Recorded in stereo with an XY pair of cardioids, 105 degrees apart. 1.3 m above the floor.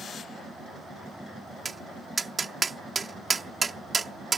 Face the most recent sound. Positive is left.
turn(degrees=-25)